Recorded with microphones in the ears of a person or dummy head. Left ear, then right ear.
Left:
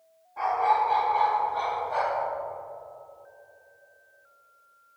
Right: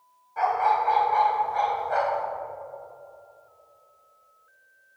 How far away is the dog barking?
About 3 m.